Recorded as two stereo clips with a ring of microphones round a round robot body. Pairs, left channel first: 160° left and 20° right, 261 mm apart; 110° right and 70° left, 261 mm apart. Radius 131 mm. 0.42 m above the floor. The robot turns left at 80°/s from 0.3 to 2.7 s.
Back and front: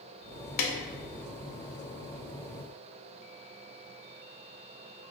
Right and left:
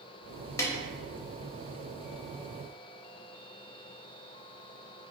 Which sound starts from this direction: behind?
A snare drum, at 0.6 s.